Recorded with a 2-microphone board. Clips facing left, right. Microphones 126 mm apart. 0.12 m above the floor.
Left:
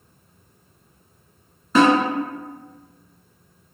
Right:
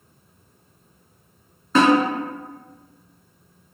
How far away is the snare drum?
About 1.4 m.